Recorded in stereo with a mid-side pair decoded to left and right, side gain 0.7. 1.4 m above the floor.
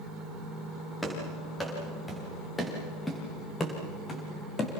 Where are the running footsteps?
15° left, 7.5 m; by 4.7 s 30° left, 4.5 m.